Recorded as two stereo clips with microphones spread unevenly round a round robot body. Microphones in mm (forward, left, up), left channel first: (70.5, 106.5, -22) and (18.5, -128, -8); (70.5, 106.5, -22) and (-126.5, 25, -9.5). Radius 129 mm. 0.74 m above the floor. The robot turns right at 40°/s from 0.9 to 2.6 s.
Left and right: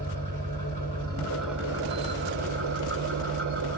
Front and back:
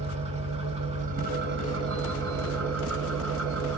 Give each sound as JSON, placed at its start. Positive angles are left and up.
{"t": 0.0, "sound": "an engine running", "azimuth_deg": 145, "distance_m": 5.5}